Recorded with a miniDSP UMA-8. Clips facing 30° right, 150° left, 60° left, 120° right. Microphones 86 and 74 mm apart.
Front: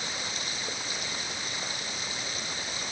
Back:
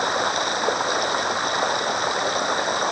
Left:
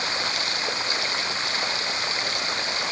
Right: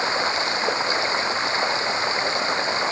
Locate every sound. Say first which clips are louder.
0.0 s running water: back 15 dB, right 6 dB; 175° left